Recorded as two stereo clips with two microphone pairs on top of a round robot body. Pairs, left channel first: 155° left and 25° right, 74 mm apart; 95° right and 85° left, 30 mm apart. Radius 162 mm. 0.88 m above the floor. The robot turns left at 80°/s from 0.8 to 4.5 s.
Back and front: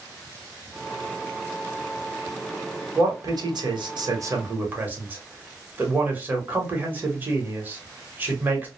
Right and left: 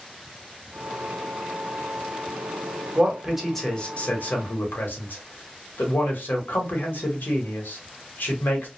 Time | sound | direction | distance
3.0 | a man speaking | 35° left | 1.1 m